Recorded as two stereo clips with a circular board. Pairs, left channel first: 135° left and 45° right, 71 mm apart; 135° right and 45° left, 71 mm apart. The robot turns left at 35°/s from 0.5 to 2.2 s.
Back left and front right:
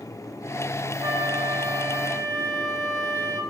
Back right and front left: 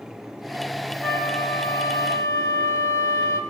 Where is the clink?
I don't hear a clink.